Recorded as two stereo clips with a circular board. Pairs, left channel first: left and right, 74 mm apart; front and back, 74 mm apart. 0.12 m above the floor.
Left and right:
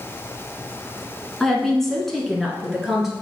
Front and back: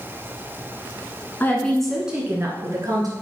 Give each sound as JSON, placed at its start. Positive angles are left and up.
{"t": 1.4, "sound": "a woman speaking", "azimuth_deg": 15, "distance_m": 1.5}